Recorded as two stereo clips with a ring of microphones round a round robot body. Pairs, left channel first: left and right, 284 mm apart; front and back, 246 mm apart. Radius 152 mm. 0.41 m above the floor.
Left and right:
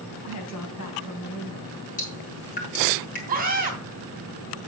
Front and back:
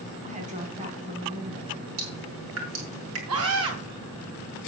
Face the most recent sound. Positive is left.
turn(degrees=-150)